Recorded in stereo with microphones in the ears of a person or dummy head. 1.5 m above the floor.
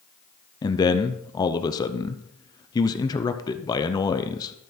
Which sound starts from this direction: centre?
A man speaking, at 0.6 s.